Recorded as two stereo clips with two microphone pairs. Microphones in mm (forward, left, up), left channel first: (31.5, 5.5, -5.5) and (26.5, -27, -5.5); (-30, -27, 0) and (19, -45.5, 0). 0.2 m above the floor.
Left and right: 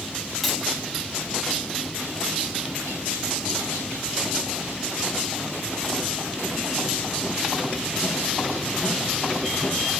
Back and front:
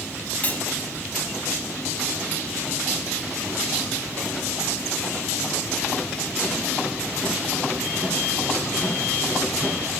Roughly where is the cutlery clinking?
Behind.